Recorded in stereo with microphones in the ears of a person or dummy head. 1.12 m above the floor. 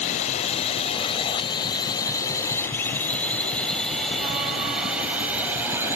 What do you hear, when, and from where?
0.0 s a drone: 35° left (ahead or behind); by 6.0 s 10° right (ahead or behind)